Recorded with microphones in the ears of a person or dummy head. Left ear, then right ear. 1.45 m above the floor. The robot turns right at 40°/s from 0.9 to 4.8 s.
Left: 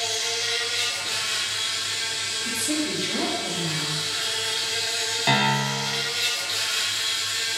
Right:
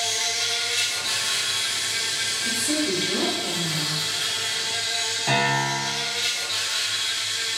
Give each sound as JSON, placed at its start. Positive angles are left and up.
{"t": 0.0, "sound": "an insect", "azimuth_deg": -140, "distance_m": 0.8}
{"t": 2.5, "sound": "a woman speaking", "azimuth_deg": -5, "distance_m": 0.7}
{"t": 5.3, "sound": "a piano", "side_deg": 40, "distance_m": 0.6}